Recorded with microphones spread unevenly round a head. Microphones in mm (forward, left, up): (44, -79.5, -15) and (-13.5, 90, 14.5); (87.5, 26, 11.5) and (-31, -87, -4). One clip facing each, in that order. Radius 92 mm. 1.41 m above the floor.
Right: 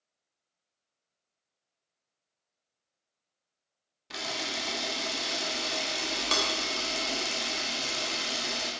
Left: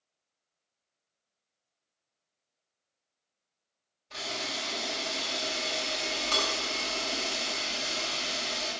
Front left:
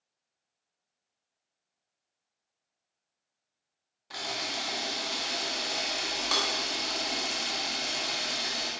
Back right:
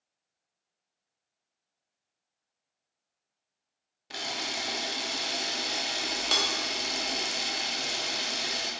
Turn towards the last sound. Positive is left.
turn(degrees=-75)